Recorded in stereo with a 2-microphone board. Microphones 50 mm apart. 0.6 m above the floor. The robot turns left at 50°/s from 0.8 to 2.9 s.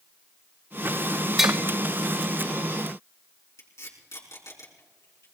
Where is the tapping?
10° right (ahead or behind), 1.8 m; by 1.6 s 15° right (ahead or behind), 1.8 m.